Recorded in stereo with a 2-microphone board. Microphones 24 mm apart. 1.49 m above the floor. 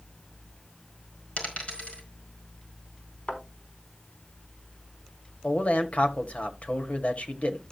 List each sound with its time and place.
1.4 s a dropped coin: 75° left (ahead or behind), 4.5 m
3.3 s a thud: 55° left (ahead or behind), 5 m
5.4 s a man speaking: 75° left (ahead or behind), 1.6 m